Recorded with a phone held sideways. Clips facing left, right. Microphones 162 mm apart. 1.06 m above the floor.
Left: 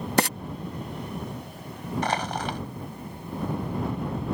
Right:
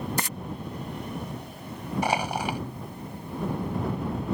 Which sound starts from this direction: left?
Frying, at 0.2 s.